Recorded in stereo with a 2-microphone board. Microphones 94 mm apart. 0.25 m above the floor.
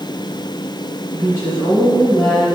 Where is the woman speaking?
30° left (ahead or behind), 2 m.